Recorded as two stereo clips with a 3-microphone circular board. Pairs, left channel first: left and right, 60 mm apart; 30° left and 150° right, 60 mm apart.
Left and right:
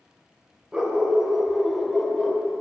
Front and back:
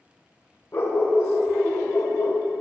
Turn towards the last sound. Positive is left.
turn(degrees=15)